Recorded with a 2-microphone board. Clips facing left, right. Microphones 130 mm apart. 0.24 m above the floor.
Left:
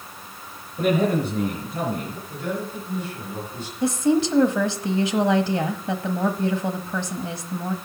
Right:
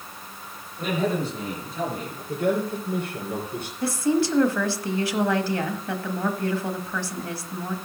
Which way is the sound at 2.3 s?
55° right (ahead or behind).